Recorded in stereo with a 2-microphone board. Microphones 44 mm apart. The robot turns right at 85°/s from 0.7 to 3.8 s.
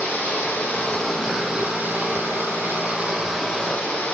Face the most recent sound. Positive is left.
turn(degrees=30)